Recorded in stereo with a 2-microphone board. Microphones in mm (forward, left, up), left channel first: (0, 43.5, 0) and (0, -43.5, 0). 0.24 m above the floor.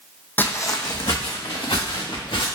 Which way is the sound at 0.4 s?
20° left (ahead or behind).